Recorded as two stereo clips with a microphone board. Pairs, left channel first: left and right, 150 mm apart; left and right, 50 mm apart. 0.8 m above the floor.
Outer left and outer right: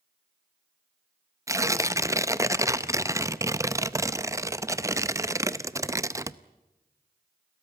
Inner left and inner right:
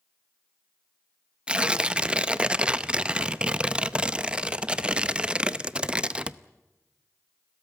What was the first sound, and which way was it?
Tearing paper, 20° right (ahead or behind).